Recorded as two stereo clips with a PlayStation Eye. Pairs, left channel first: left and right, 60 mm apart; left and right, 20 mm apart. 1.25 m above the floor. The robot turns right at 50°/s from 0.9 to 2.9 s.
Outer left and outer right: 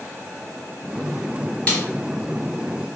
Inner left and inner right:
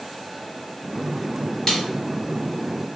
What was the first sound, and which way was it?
A snare drum, 20° left (ahead or behind).